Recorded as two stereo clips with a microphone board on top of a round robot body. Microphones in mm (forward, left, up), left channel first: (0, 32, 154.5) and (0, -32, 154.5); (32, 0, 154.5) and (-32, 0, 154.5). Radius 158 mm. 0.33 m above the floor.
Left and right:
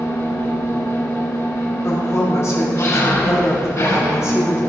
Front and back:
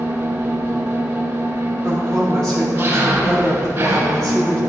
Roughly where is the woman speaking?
Left.